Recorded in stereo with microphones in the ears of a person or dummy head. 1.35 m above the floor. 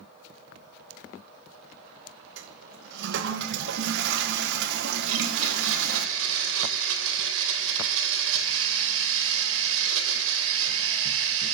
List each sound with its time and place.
2.4 s a toilet flushing: 70° right (ahead or behind), 0.8 m
5.1 s a blender: 75° right (ahead or behind), 2.5 m